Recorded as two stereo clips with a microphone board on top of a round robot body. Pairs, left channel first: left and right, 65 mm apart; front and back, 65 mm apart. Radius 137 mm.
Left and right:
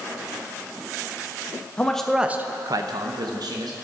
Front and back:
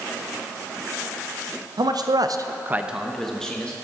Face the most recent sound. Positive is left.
turn(degrees=-75)